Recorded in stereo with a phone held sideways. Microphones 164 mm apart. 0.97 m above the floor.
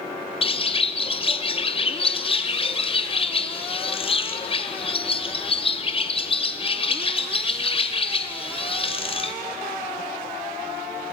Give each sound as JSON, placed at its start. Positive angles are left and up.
{"t": 0.4, "sound": "a bird", "side_deg": 35, "distance_m": 0.6}